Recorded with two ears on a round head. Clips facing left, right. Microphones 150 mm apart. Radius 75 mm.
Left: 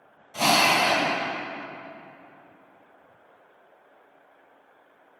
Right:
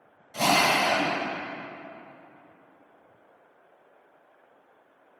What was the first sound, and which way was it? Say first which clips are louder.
A drill: left 1 dB; 25° right (ahead or behind).